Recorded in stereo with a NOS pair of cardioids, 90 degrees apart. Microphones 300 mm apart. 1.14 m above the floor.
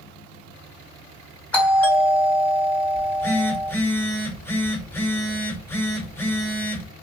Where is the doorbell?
5° left, 1.7 m.